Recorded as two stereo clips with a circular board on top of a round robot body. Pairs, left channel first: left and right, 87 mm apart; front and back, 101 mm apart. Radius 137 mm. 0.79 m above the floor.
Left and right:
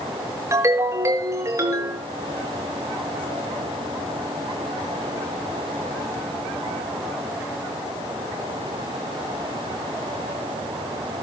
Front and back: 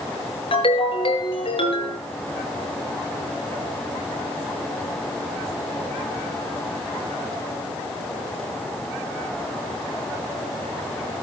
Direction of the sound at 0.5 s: 35° right.